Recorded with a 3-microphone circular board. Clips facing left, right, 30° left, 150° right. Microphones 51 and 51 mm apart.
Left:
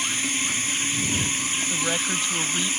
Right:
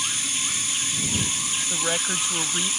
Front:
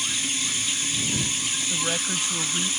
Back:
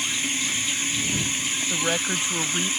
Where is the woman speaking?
160° right.